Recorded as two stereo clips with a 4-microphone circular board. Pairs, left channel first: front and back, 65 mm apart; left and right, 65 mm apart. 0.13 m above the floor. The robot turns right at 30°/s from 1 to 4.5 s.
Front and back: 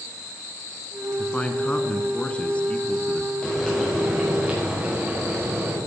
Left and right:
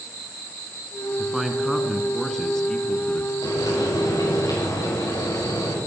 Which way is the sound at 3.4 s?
75° left.